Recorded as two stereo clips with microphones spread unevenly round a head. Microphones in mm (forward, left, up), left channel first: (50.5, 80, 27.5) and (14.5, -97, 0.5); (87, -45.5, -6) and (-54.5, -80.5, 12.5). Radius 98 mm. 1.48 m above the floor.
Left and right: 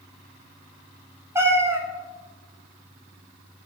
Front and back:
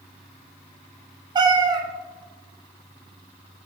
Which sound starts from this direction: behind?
A cat meowing, at 1.4 s.